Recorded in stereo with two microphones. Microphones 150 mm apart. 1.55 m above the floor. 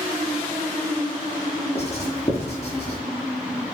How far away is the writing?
About 7.5 m.